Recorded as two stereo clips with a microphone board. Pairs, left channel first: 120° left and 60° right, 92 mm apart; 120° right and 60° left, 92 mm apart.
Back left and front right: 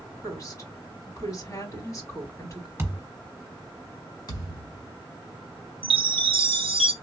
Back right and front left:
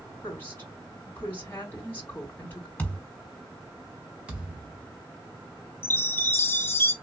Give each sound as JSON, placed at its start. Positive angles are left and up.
{"t": 0.2, "sound": "a woman speaking", "azimuth_deg": 175, "distance_m": 3.0}
{"t": 2.8, "sound": "a thud", "azimuth_deg": -70, "distance_m": 1.2}
{"t": 4.3, "sound": "a thud", "azimuth_deg": 135, "distance_m": 1.5}
{"t": 5.8, "sound": "a chime", "azimuth_deg": -55, "distance_m": 0.5}